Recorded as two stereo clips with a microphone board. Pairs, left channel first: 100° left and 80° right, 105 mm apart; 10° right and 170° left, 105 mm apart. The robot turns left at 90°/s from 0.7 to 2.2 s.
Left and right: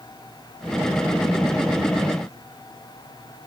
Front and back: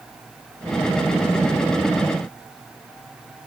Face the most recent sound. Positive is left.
No sound to turn to.